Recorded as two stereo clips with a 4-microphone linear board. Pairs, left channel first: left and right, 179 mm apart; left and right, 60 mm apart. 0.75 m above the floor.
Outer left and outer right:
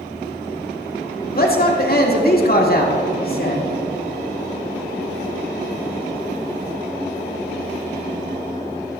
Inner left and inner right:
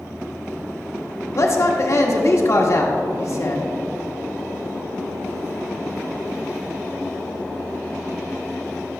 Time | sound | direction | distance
1.4 | a man speaking | 55° left (ahead or behind) | 1.5 m